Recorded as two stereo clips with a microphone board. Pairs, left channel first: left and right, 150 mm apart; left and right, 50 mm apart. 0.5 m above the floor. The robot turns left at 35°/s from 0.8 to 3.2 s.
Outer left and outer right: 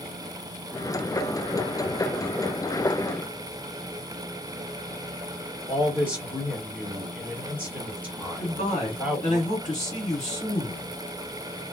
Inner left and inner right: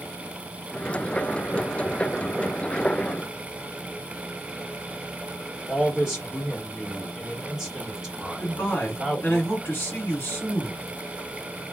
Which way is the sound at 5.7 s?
5° right (ahead or behind).